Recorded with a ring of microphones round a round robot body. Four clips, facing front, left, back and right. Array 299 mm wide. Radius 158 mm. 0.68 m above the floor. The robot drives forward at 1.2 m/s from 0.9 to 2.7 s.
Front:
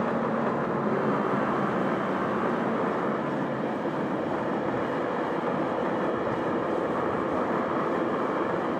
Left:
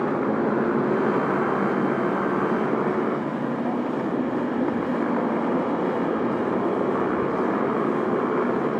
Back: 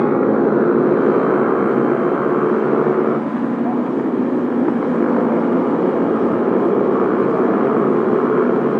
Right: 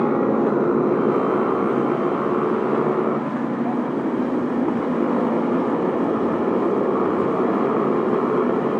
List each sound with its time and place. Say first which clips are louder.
0.0 s a motorcycle: right 4 dB, back 12 dB; 170° right